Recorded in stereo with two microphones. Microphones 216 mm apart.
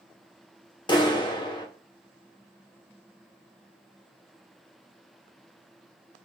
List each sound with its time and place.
0.9 s a clap: 20° left (ahead or behind), 0.9 m